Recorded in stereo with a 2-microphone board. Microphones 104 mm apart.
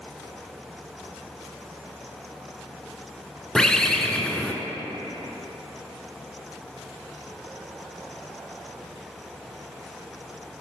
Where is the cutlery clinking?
I don't hear cutlery clinking.